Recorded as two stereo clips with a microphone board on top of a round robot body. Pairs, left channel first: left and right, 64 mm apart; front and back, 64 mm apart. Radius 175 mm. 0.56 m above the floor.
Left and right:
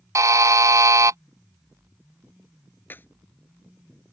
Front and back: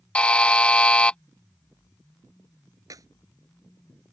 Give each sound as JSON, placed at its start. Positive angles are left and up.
{"t": 0.1, "sound": "a buzzer", "azimuth_deg": -70}
{"t": 2.9, "sound": "a clap", "azimuth_deg": 150}